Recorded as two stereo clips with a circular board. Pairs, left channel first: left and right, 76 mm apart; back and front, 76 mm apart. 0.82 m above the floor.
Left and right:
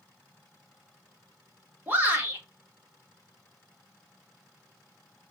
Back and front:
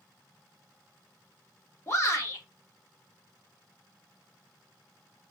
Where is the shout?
140° right, 1.4 m.